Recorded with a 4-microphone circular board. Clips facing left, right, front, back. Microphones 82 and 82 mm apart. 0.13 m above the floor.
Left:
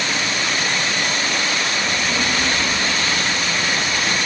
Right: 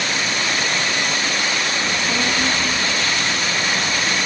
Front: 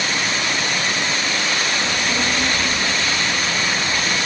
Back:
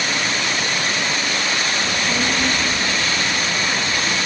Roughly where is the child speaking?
Behind right.